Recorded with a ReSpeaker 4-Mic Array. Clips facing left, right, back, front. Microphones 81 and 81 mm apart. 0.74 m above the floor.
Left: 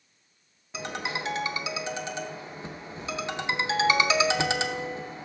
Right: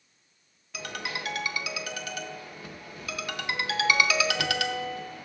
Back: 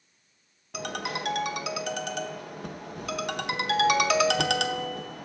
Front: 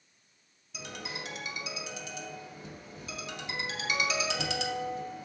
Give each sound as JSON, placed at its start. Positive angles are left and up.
{"t": 0.7, "sound": "a ringtone", "azimuth_deg": 155, "distance_m": 0.5}